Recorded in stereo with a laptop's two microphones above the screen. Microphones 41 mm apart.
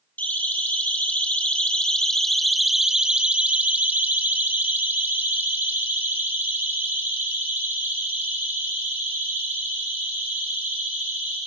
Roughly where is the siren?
Left.